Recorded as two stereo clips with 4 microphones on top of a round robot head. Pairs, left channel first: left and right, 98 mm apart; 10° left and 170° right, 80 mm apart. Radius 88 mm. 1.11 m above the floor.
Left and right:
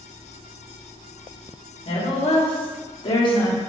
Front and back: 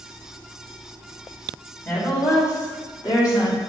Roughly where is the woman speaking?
Left.